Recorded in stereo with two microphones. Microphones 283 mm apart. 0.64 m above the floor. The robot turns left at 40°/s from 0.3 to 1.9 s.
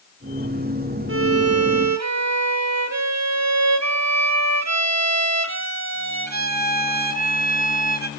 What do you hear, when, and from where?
1.1 s a violin: 50° right, 0.5 m; by 8.1 s 80° right, 0.5 m